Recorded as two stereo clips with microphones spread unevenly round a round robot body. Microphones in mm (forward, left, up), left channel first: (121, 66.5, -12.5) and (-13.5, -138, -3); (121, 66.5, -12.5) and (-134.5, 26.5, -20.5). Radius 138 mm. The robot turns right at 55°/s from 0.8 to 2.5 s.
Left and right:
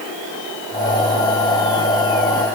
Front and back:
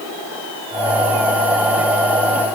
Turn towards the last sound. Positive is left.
No sound to turn to.